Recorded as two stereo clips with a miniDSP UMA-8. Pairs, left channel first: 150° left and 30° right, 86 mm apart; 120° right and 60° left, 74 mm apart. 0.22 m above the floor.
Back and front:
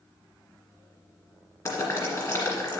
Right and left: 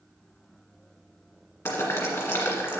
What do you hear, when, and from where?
1.6 s boiling: 170° right, 2.5 m